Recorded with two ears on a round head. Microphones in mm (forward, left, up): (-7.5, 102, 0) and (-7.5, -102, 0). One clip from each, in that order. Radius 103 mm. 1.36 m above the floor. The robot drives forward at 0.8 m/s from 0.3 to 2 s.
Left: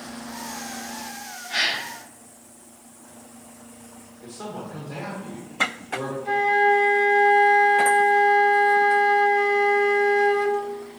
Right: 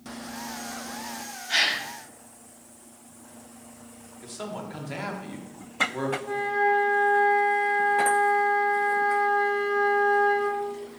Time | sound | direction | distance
1.5 | a gasp | 80° right | 2 m
4.2 | a man speaking | 65° right (ahead or behind) | 1.4 m
6.2 | a flute | 70° left (ahead or behind) | 0.9 m